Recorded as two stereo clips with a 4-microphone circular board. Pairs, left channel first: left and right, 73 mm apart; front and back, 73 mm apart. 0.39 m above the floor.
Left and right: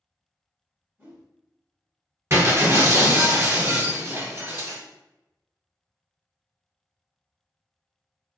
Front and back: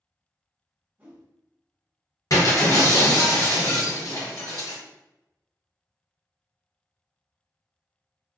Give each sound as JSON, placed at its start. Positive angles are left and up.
{"t": 1.0, "sound": "a whoosh", "azimuth_deg": -135, "distance_m": 1.1}
{"t": 2.3, "sound": "breaking glass", "azimuth_deg": -40, "distance_m": 1.4}